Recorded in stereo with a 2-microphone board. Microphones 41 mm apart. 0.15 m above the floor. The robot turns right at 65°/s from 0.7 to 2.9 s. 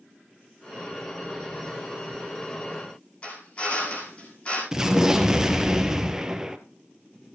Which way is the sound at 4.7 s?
10° right (ahead or behind).